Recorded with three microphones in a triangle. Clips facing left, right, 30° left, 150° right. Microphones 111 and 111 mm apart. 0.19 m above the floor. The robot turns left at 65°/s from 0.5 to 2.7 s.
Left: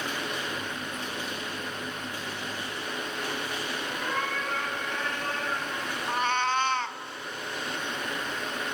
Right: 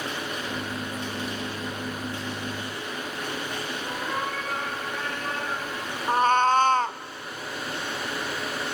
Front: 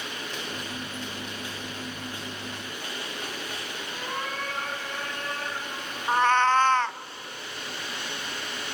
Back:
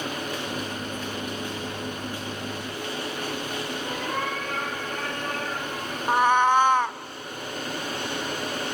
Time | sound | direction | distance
3.9 | a cat meowing | 155° right | 9 m
6.1 | a cat meowing | 80° right | 0.5 m